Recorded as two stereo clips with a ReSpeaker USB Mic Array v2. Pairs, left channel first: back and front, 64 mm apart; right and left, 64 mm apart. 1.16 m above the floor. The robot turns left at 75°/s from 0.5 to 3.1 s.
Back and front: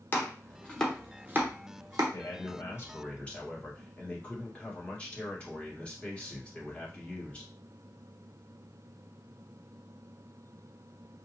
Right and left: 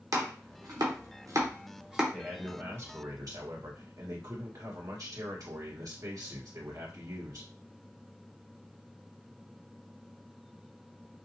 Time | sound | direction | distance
0.1 | chopping | 120° left | 0.9 m
2.1 | a man speaking | 175° right | 1.4 m